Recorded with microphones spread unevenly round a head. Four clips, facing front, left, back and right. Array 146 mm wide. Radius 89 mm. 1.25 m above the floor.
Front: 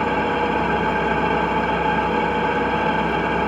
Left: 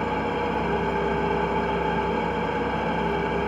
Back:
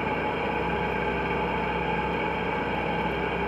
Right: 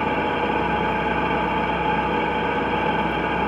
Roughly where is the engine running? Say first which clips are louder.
Right 3 dB, front 7 dB; ahead.